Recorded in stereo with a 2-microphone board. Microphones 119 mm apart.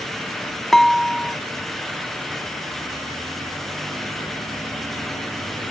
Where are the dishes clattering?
5° left (ahead or behind).